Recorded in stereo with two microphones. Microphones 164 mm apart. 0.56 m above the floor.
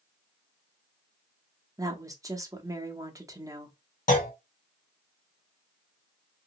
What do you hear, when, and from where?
1.8 s a woman speaking: 20° right (ahead or behind), 0.8 m
4.1 s a clunk: 50° left (ahead or behind), 1.0 m